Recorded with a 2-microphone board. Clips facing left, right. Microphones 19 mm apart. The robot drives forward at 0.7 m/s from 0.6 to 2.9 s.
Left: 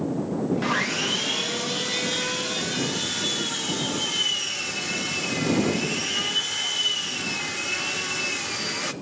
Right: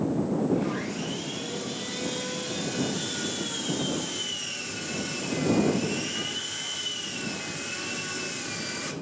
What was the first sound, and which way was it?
Sawing, 45° left (ahead or behind).